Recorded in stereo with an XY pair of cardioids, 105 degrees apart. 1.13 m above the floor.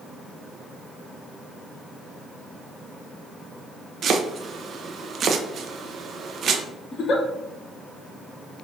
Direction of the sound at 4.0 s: 55° right.